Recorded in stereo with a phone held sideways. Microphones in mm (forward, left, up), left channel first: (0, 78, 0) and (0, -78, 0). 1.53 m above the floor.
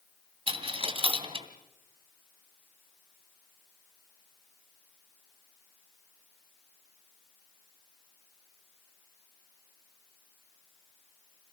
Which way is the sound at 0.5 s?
40° right (ahead or behind).